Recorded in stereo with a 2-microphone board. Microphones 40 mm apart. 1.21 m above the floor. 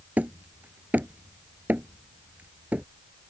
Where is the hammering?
40° right (ahead or behind).